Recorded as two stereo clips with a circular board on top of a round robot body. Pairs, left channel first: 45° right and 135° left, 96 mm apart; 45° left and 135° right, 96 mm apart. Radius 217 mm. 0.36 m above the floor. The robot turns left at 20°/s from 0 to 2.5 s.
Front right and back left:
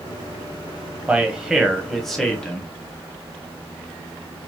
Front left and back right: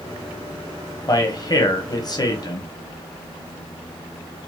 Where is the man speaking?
60° left, 1.3 m; by 2.7 s 35° left, 1.3 m.